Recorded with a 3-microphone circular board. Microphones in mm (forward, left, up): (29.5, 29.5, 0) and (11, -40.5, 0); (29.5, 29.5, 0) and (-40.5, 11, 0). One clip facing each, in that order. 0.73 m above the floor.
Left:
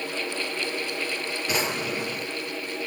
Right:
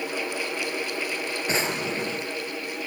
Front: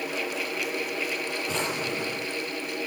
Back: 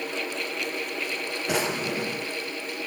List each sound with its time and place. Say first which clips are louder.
1.5 s a drawer: even, back 5 dB; 165° right, 3.5 m